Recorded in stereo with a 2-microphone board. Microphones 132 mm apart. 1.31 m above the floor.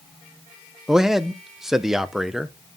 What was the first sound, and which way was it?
A man speaking, 5° right (ahead or behind).